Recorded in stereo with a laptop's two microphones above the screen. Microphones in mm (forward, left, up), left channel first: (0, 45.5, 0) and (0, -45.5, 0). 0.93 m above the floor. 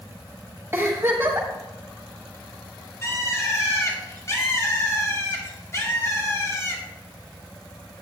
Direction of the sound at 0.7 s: 30° right (ahead or behind).